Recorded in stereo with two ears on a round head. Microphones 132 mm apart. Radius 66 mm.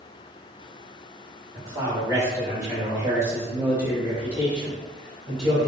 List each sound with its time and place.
1.6 s a man speaking: 20° right (ahead or behind), 1.8 m; by 5.7 s centre (ahead or behind), 1.7 m